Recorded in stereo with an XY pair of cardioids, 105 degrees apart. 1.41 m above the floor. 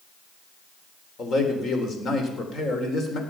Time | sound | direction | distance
1.2 | a man speaking | 50° left | 4 m